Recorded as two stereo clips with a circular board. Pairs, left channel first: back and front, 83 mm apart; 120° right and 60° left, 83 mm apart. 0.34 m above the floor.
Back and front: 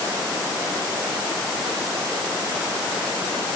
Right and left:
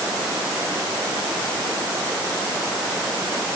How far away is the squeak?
I don't hear a squeak.